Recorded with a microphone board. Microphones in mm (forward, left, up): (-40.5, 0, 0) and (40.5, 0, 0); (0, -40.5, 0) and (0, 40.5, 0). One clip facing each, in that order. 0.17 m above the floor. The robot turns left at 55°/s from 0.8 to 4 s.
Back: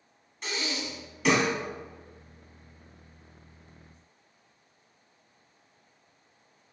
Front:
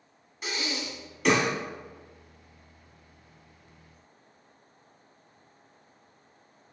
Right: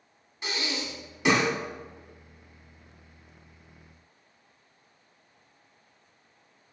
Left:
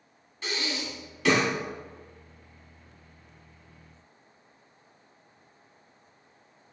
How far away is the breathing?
About 0.9 m.